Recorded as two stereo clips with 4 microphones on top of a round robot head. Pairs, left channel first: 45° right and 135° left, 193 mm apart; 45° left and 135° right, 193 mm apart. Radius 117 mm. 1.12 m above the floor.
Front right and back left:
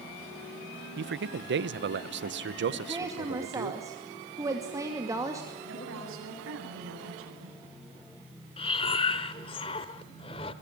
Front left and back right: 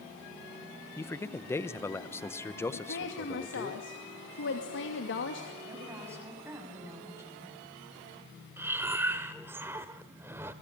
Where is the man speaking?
120° left, 1.1 m.